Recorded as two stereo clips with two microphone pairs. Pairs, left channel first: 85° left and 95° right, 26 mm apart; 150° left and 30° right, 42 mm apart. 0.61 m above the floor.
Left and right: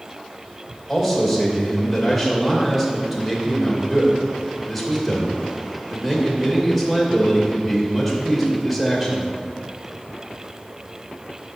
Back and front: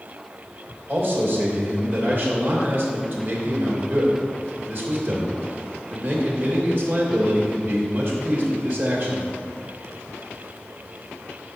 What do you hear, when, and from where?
0.9 s a man speaking: straight ahead, 2.5 m